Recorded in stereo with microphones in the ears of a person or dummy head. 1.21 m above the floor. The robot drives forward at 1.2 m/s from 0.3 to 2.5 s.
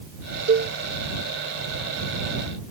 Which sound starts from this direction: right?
A cowbell, at 0.5 s.